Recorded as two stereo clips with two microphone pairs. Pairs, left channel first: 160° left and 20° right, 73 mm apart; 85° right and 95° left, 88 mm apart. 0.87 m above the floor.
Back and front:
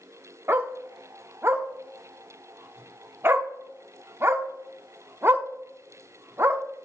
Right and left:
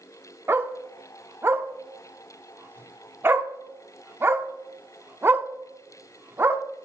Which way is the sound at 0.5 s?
35° left.